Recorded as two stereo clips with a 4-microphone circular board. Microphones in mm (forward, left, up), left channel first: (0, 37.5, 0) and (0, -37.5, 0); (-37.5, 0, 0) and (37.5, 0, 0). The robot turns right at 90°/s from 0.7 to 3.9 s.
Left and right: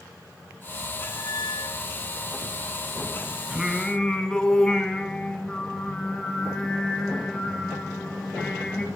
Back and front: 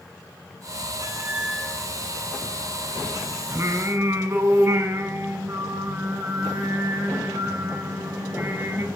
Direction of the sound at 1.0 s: 40° left.